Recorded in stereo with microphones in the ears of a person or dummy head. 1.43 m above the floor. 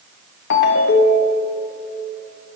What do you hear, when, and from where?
0.5 s a ringtone: 70° left (ahead or behind), 1.1 m